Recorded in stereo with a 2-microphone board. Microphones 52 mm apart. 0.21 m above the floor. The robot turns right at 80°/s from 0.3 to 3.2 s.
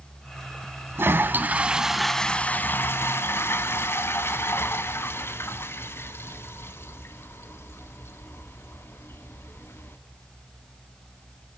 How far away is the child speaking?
No child speaking in this recording.